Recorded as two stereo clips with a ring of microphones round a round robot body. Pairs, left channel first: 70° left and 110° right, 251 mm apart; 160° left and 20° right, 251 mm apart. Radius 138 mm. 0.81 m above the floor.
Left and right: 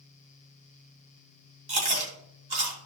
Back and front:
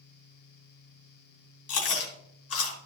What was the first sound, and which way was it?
Chewing, 175° right.